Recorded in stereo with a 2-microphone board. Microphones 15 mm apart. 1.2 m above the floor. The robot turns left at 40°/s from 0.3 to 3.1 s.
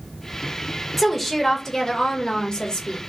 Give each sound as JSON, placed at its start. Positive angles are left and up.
{"t": 1.0, "sound": "a woman speaking", "azimuth_deg": 180, "distance_m": 1.4}